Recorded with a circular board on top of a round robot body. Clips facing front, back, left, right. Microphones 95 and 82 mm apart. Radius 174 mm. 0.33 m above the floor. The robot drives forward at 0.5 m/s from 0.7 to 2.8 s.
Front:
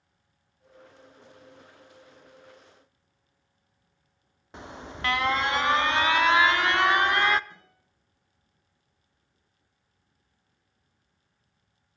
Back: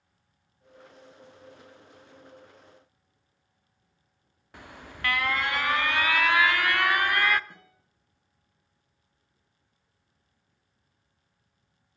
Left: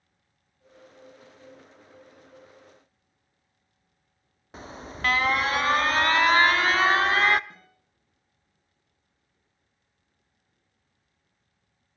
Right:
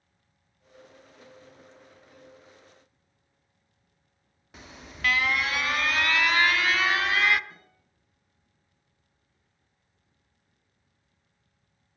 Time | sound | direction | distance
4.5 | an alarm | 55° left | 0.6 m
7.5 | a guitar | 145° left | 6 m